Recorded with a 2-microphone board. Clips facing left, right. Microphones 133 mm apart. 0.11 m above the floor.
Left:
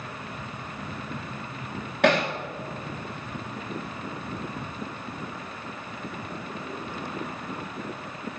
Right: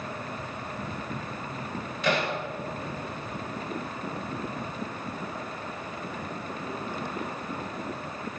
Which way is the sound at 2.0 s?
75° left (ahead or behind).